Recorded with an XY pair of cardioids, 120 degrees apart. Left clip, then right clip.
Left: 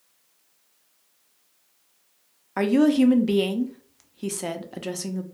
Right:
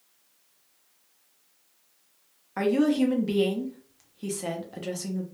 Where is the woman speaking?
30° left, 0.5 m.